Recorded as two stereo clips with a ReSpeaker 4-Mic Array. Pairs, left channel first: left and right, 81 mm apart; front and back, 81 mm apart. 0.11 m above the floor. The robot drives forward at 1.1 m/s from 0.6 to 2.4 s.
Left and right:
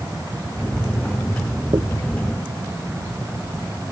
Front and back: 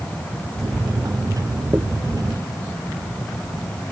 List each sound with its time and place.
1.7 s a dropped coin: 125° right